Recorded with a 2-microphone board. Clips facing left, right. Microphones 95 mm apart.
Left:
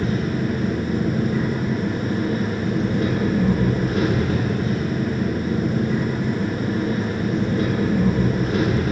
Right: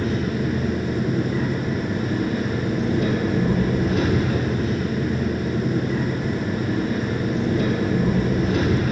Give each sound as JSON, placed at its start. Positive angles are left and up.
{"t": 0.0, "sound": "an engine running", "side_deg": 50, "distance_m": 3.5}